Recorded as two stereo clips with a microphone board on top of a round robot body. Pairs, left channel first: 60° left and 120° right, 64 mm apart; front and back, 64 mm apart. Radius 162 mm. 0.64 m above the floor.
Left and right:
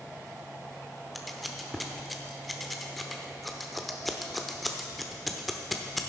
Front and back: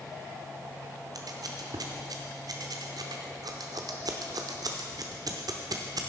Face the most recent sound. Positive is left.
turn(degrees=150)